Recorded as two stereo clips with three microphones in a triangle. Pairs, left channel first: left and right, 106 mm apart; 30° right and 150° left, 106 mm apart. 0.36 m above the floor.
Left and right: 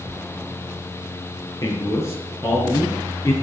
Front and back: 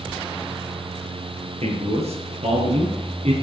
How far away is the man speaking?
About 6 m.